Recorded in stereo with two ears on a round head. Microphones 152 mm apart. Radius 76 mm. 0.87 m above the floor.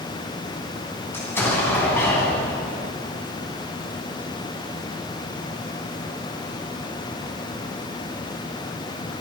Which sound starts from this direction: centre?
An explosion, at 1.1 s.